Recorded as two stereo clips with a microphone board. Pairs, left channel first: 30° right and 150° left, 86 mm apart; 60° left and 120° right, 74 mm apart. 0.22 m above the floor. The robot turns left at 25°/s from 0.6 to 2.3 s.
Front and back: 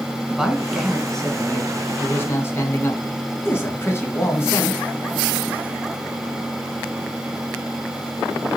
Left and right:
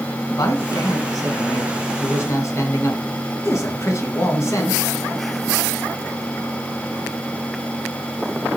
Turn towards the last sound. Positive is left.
turn(degrees=25)